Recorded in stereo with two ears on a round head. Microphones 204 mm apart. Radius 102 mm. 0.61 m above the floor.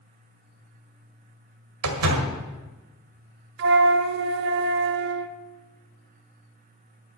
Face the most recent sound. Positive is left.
turn(degrees=-50)  # may be behind; listen again after turning